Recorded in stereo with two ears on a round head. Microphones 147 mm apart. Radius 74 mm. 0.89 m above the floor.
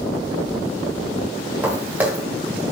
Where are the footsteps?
10° right (ahead or behind), 4.5 m.